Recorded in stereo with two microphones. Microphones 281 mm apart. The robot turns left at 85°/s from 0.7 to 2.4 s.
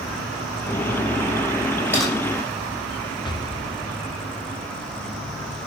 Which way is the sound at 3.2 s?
15° left (ahead or behind).